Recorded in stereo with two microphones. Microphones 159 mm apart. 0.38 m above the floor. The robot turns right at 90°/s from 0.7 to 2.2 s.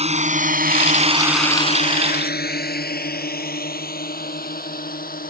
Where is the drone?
40° right (ahead or behind); by 5.3 s 65° left (ahead or behind).